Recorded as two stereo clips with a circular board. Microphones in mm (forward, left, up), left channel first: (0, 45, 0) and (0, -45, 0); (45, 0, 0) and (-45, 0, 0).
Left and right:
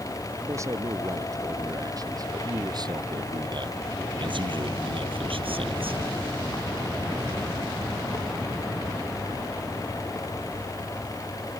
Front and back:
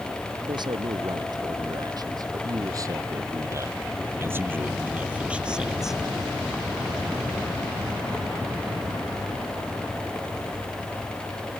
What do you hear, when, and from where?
0.5 s a man speaking: 145° right; by 6.0 s 95° right